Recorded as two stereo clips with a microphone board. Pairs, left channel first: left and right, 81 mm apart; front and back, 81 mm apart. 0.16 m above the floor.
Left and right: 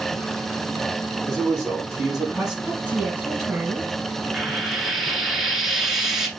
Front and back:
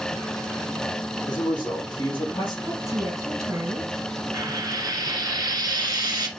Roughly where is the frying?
Behind.